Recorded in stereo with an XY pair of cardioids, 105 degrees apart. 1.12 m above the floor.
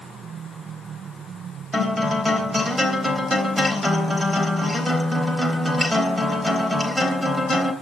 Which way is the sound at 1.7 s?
5° right.